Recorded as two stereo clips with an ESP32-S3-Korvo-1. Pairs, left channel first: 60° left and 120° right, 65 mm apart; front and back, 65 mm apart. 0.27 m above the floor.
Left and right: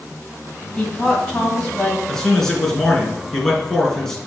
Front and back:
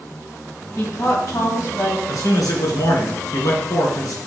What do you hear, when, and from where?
0.8 s a woman speaking: 10° right, 2.0 m
2.1 s a man speaking: 20° right, 2.5 m